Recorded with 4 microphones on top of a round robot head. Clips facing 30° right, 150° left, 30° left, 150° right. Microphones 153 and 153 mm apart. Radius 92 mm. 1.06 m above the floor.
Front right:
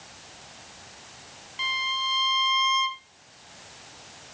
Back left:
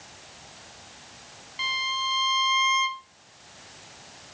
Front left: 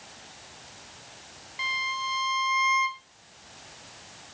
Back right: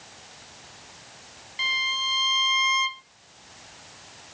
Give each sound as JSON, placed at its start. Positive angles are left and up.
{"t": 1.6, "sound": "a violin", "azimuth_deg": -130, "distance_m": 0.7}